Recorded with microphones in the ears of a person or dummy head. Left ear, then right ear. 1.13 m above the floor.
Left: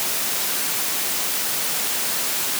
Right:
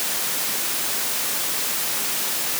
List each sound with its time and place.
Only background noise.